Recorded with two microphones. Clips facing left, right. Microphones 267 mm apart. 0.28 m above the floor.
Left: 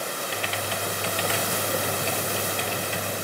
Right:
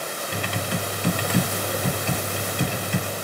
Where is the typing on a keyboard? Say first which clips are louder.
Right 6 dB; 55° right (ahead or behind), 1.2 m.